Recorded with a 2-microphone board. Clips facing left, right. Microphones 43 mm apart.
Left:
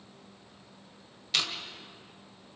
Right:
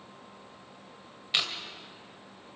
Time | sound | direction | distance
1.3 | chewing | 20° right (ahead or behind) | 2.5 m